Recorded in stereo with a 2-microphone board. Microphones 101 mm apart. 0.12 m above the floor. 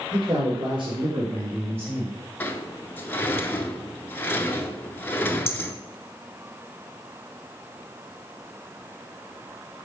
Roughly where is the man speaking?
Right.